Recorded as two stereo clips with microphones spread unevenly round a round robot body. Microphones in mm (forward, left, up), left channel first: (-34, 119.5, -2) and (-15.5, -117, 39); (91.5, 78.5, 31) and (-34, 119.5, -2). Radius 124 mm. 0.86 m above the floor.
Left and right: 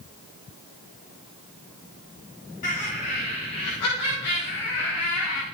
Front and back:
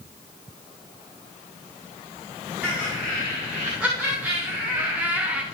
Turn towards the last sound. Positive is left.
turn(degrees=90)